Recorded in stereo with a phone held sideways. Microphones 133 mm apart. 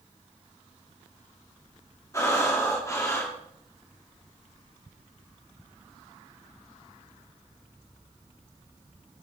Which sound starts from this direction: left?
Breathing, at 2.1 s.